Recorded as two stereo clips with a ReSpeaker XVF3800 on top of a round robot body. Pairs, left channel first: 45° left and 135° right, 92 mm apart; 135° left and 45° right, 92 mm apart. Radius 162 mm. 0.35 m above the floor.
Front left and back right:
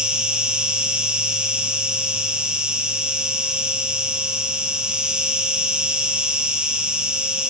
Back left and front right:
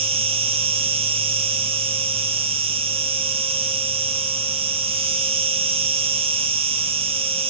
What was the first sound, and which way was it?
An insect, 55° right.